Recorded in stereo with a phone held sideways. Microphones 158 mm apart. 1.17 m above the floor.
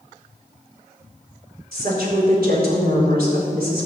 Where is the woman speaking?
85° right, 4.5 m.